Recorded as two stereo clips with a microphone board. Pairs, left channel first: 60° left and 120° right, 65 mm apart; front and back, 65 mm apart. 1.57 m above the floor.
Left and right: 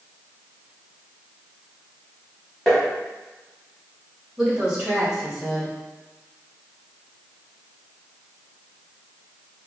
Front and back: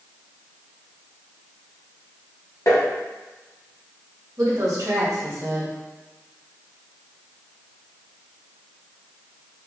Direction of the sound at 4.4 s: 160° left.